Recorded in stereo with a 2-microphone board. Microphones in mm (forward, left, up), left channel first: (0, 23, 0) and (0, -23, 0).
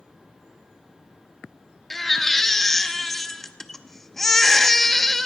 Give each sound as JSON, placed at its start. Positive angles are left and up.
{"t": 1.9, "sound": "a baby crying", "side_deg": 5, "distance_m": 0.5}